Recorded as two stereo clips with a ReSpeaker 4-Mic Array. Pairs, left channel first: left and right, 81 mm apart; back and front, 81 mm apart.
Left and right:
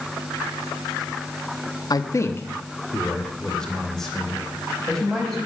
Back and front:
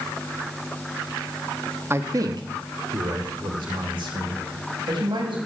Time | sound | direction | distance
1.9 | a man speaking | 60° left | 0.8 m